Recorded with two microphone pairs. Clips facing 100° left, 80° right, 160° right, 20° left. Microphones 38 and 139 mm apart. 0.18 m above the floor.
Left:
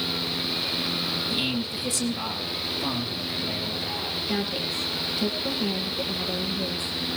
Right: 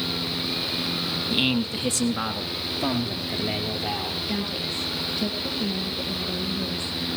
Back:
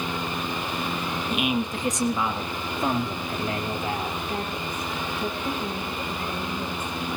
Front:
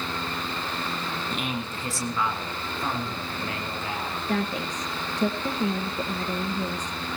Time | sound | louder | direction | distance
1.3 | a man speaking | right 4 dB, back 5 dB | 80° right | 1.6 m
4.3 | a woman speaking | left 1 dB, front 2 dB | 20° left | 4 m